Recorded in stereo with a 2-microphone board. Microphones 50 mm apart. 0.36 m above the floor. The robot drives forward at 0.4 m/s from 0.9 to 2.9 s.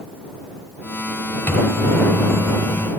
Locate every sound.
1.5 s a microwave: 50° left (ahead or behind), 1.4 m; by 2.9 s 40° left (ahead or behind), 1.6 m